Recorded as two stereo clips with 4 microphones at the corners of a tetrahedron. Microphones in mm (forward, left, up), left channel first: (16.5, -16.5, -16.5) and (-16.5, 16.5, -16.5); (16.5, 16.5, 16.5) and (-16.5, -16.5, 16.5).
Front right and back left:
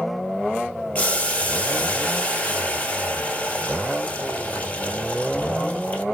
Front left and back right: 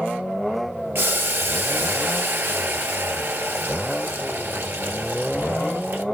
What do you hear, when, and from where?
0.9 s boiling: 100° right, 1.2 m